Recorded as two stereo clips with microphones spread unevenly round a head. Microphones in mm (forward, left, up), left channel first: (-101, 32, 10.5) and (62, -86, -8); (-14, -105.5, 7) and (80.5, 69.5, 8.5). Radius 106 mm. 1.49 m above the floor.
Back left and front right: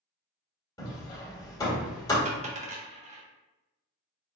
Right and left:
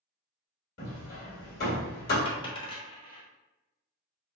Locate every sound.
0.8 s hammering: 150° right, 1.7 m
2.2 s a dropped coin: 70° right, 1.0 m